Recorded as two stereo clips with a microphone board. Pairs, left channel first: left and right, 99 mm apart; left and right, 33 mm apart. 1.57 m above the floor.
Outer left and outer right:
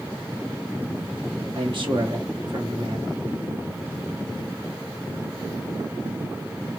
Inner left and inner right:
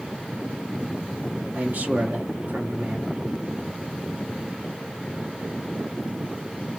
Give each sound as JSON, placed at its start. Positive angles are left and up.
{"t": 1.5, "sound": "a man speaking", "side_deg": -55, "distance_m": 1.5}